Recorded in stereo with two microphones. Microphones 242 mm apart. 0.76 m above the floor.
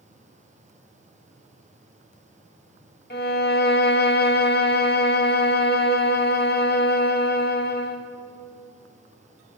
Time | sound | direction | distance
3.1 | a violin | 40° left (ahead or behind) | 0.7 m